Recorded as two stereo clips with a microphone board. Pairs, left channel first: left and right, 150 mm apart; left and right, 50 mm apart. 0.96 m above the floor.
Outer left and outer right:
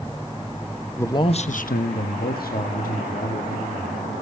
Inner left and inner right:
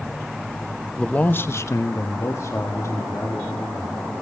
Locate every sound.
1.0 s a man speaking: 15° left (ahead or behind), 0.7 m; by 4.1 s 60° left (ahead or behind), 2.5 m